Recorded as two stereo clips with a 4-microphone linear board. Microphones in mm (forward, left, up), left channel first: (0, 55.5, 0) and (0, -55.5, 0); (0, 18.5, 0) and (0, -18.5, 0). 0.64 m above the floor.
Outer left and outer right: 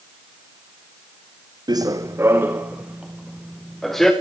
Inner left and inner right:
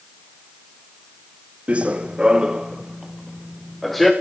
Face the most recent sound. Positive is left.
turn(degrees=5)  # may be behind; listen again after turning